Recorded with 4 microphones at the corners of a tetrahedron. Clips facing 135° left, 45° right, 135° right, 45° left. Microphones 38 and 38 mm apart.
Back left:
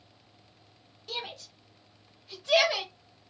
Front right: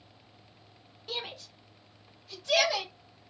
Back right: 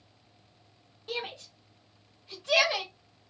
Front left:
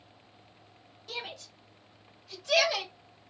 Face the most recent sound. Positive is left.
turn(degrees=175)